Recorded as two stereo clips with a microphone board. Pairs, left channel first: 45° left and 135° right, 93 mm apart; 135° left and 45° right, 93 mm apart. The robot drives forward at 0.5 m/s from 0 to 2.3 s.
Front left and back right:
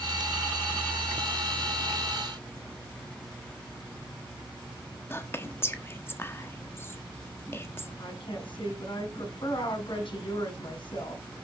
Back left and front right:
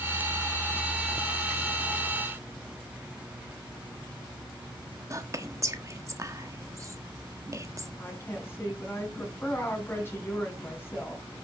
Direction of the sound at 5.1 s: 10° right.